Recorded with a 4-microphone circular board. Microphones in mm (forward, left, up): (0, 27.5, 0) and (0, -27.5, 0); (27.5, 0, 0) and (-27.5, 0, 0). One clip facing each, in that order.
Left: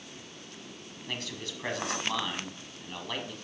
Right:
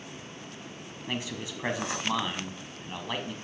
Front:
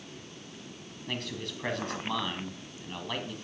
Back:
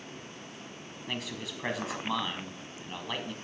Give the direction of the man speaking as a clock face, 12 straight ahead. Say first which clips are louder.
Right 3 dB, front 1 dB; 4 o'clock.